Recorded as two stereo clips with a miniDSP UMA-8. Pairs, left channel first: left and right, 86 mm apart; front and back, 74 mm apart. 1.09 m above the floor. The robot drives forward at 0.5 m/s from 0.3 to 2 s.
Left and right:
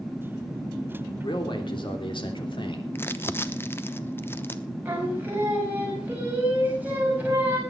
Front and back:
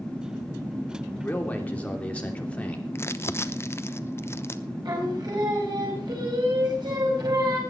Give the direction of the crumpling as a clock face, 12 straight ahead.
11 o'clock.